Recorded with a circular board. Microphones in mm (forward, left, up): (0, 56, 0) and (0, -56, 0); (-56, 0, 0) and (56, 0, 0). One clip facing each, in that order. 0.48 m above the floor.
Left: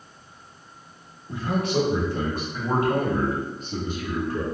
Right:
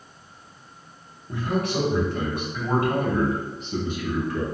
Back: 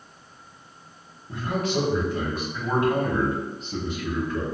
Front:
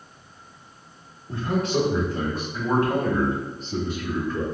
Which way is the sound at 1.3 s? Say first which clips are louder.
Left 1 dB, front 2 dB; 40° left.